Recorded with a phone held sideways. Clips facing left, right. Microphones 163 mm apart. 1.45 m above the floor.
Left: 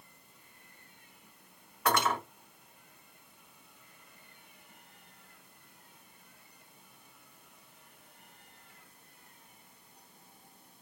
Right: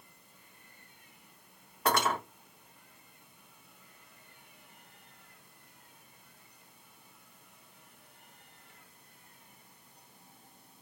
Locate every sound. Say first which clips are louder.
1.9 s cutlery clinking: even; 30° right (ahead or behind), 1.6 m